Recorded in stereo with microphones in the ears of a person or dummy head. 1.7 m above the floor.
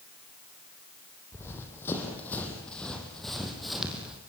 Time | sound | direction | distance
1.3 | running footsteps | 20° left (ahead or behind) | 4.5 m